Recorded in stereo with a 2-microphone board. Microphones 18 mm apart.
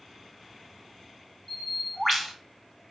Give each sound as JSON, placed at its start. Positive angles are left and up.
{"t": 1.5, "sound": "a bird", "side_deg": 0, "distance_m": 1.2}